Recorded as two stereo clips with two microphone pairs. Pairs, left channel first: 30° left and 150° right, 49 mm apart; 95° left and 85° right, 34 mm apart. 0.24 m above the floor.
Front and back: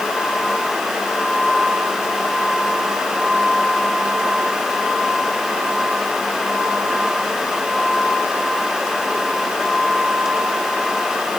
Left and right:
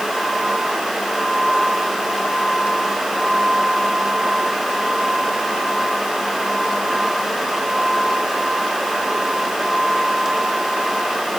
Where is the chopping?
No chopping in this recording.